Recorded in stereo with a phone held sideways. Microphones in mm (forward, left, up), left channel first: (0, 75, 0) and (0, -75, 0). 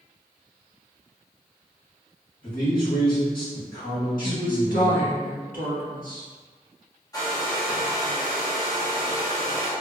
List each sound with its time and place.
2.4 s a man speaking: 70° left (ahead or behind), 1.8 m
4.2 s a woman speaking: 75° left (ahead or behind), 1.3 m
7.1 s a hair dryer: 25° left (ahead or behind), 0.9 m